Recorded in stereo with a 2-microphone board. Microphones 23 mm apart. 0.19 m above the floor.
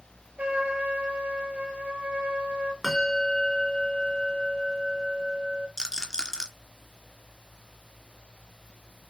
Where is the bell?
10° left (ahead or behind), 3 m.